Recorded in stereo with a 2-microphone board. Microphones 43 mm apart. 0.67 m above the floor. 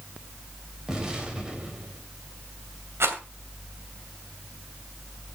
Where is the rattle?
80° right, 2.5 m.